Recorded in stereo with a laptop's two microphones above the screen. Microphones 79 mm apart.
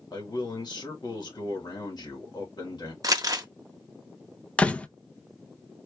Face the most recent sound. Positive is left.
turn(degrees=15)  # may be behind; listen again after turning